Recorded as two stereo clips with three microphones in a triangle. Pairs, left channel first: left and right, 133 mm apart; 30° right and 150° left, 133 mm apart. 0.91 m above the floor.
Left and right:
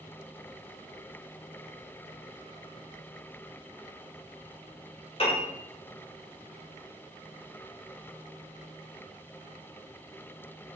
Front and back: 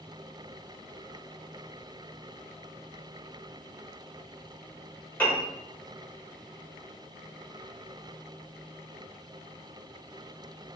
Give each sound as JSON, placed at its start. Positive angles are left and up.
{"t": 5.2, "sound": "a piano", "azimuth_deg": 45, "distance_m": 3.5}